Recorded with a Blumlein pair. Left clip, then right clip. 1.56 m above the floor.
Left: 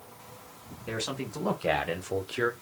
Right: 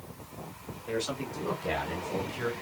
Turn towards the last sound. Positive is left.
turn(degrees=30)